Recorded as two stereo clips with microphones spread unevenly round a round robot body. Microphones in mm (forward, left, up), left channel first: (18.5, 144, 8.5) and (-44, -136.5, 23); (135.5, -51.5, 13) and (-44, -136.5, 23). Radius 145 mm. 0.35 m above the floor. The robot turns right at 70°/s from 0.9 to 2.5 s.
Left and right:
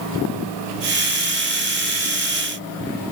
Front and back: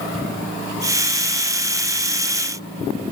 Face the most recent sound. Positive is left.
No sound to turn to.